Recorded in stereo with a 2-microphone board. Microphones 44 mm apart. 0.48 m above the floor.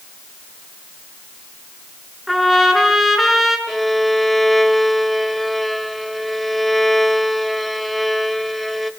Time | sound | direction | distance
2.3 | a trumpet | centre (ahead or behind) | 5 m
3.7 | a violin | 5° left (ahead or behind) | 1.4 m